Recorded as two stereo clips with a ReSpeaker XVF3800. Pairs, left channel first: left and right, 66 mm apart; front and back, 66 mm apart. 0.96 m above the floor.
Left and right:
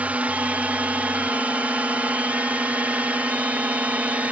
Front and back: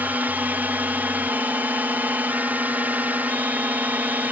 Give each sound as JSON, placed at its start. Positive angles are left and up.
{"t": 0.0, "sound": "a drone", "azimuth_deg": -135}